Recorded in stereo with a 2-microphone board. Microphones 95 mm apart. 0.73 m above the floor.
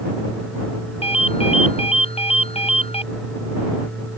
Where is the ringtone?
75° left (ahead or behind).